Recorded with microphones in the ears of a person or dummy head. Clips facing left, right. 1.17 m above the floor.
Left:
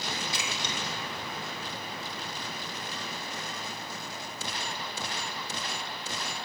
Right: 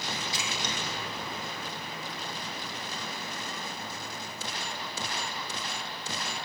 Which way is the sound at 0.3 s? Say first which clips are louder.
Even; 50° left (ahead or behind).